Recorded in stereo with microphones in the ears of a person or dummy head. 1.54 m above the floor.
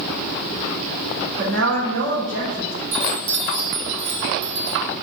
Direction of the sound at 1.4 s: 70° right (ahead or behind).